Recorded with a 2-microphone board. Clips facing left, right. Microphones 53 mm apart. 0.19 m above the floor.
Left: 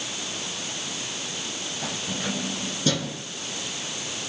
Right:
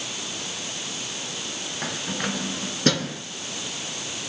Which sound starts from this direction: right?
Keys jangling, at 1.8 s.